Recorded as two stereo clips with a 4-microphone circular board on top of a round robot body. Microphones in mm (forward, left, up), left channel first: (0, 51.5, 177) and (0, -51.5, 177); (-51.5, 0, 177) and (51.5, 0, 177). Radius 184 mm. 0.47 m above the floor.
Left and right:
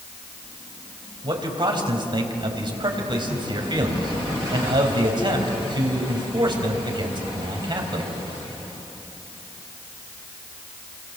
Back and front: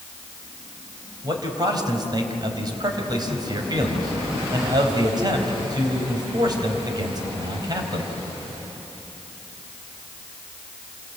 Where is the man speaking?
50° right, 4 m.